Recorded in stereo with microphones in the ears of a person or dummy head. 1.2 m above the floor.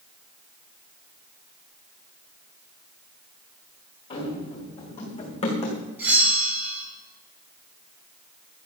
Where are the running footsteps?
30° left (ahead or behind), 4.5 m.